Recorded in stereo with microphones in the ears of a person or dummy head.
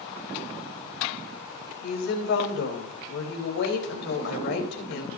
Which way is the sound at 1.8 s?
50° left (ahead or behind).